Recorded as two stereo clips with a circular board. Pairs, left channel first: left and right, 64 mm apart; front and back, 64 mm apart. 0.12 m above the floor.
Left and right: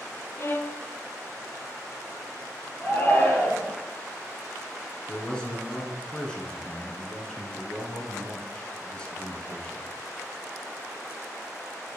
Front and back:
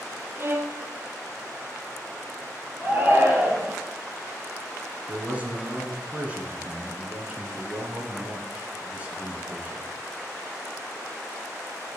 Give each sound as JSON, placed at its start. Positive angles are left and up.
{"t": 0.4, "sound": "a violin", "azimuth_deg": 135, "distance_m": 0.6}
{"t": 2.8, "sound": "a shout", "azimuth_deg": 135, "distance_m": 2.5}
{"t": 5.1, "sound": "a man speaking", "azimuth_deg": 150, "distance_m": 1.5}